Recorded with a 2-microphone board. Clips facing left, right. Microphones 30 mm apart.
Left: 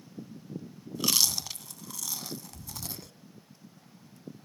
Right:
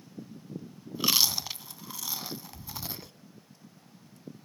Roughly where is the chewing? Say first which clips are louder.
Right 2 dB; right.